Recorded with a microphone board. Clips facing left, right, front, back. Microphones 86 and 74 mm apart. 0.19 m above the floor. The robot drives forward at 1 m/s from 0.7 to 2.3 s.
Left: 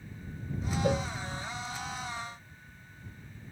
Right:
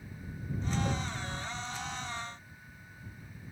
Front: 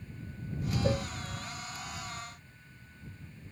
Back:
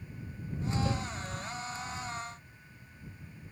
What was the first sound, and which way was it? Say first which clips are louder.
A cowbell: left 6 dB, front 3 dB; 55° left.